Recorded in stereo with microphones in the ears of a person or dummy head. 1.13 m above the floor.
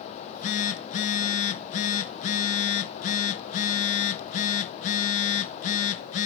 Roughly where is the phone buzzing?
Left.